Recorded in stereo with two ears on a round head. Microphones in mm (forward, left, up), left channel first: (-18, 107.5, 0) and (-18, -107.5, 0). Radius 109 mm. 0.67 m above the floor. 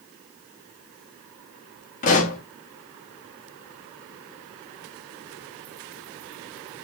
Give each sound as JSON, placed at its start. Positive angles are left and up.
{"t": 2.0, "sound": "a pop", "side_deg": 30, "distance_m": 1.3}